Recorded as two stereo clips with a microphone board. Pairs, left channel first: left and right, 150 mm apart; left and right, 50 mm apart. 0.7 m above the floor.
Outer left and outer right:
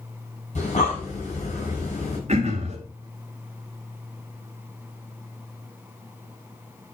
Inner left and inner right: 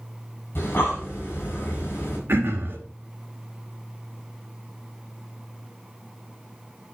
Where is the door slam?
No door slam in this recording.